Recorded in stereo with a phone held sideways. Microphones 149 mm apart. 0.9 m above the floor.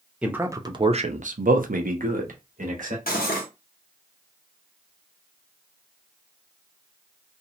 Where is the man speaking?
5° right (ahead or behind), 0.6 m; by 3.0 s 60° right (ahead or behind), 1.1 m.